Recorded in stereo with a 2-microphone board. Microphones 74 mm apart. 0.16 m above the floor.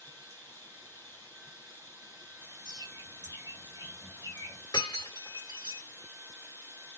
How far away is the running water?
About 0.8 m.